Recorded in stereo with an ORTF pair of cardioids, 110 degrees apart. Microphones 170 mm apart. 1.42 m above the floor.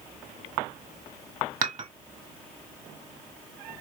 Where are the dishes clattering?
50° right, 2.0 m.